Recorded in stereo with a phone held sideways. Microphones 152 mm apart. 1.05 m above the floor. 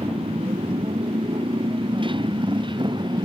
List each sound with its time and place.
0.0 s a motorcycle: 35° right (ahead or behind); by 3.3 s 30° right (ahead or behind)